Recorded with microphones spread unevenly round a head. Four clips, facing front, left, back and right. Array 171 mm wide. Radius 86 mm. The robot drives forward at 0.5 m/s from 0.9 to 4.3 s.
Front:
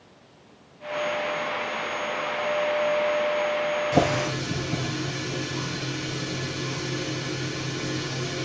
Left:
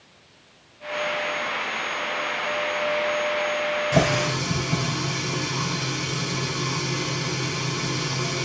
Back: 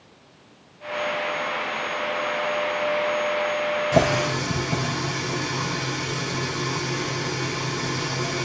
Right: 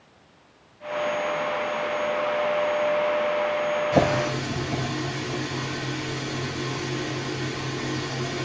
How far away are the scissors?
No scissors in this recording.